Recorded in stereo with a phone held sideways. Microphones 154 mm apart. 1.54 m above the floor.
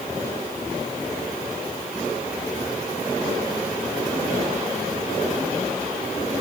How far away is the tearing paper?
No tearing paper in this recording.